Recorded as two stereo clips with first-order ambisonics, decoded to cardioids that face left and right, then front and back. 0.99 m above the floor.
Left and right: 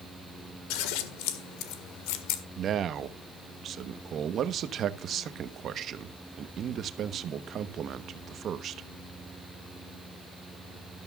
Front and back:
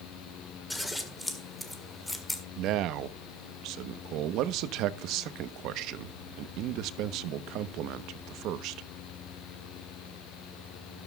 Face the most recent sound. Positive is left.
turn(degrees=-145)